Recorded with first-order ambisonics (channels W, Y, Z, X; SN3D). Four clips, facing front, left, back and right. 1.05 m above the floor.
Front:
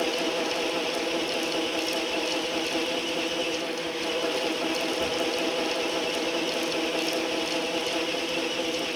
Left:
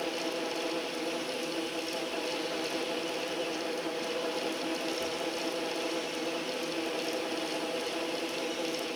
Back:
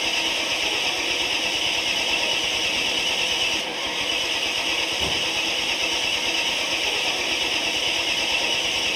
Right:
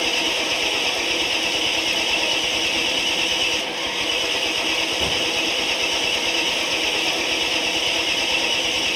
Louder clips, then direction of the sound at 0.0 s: Right 12 dB, back 3 dB; 120° right.